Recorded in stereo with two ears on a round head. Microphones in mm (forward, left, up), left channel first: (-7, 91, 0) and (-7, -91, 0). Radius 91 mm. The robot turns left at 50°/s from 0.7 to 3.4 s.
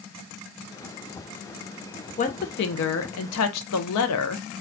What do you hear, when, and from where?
2.2 s a woman speaking: 145° left, 0.5 m; by 4.6 s 85° left, 0.5 m